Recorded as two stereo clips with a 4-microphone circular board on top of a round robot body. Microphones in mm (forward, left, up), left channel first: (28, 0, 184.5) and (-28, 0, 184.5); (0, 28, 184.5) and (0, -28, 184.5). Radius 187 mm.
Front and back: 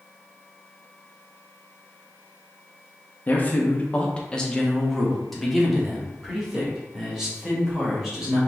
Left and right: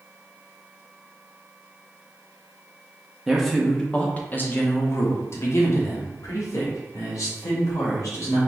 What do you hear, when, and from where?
3.3 s a man speaking: 10° right, 1.0 m; by 8.4 s 100° left, 2.5 m